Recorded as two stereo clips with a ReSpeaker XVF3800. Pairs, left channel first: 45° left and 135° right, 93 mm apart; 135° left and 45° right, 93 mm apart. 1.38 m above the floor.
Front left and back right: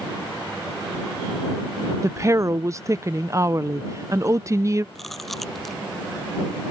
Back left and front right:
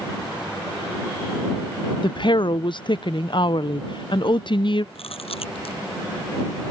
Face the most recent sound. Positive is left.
turn(degrees=135)